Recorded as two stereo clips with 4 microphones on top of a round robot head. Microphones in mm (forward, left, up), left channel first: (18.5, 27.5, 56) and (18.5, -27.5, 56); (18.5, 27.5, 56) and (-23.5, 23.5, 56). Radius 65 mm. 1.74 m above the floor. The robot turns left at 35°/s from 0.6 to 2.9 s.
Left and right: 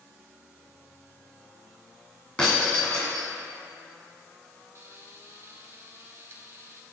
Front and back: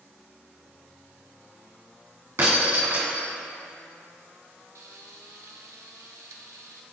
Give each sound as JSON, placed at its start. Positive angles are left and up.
{"t": 2.4, "sound": "breaking glass", "azimuth_deg": 165, "distance_m": 2.0}
{"t": 4.8, "sound": "frying", "azimuth_deg": -145, "distance_m": 0.7}